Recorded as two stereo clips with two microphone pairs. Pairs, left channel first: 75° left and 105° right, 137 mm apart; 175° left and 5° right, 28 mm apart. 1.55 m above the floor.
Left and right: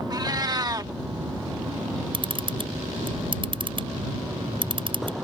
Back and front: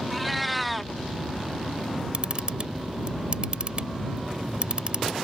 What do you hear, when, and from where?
0.1 s a cat meowing: 95° right
2.1 s a camera shutter: 55° right